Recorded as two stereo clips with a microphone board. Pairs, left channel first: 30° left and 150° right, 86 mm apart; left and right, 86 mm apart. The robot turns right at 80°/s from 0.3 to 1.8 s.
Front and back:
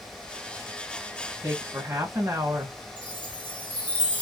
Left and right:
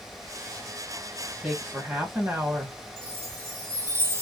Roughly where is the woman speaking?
Behind.